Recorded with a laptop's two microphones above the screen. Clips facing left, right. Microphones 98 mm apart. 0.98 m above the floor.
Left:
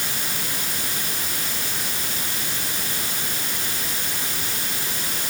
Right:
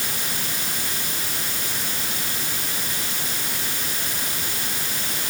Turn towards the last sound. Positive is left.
No sound to turn to.